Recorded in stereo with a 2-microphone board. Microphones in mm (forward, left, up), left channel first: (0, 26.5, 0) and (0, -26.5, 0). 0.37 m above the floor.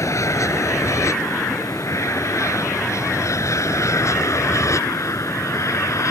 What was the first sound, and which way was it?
An aircraft, 65° left (ahead or behind).